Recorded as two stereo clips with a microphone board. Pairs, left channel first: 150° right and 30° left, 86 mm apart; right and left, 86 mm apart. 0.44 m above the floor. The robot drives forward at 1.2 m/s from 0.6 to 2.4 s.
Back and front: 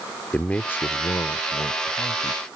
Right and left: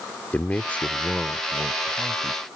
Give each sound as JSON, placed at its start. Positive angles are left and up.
{"t": 0.3, "sound": "a man speaking", "azimuth_deg": -115}